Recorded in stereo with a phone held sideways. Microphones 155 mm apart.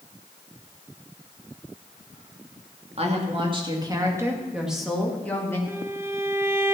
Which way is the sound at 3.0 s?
45° right (ahead or behind).